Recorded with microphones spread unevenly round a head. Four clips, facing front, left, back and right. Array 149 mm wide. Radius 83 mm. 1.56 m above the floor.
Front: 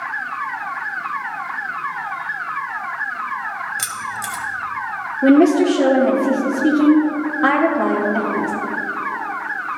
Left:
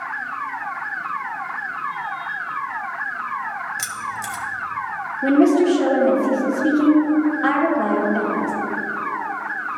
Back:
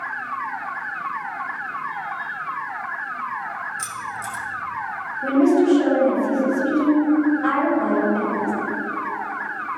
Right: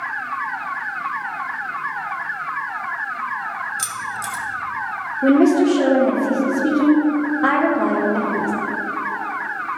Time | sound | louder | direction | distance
3.8 | keys jangling | right 1 dB, front 3 dB | 10° left | 1.2 m
5.2 | a woman speaking | right 1 dB, front 4 dB | 25° right | 1.3 m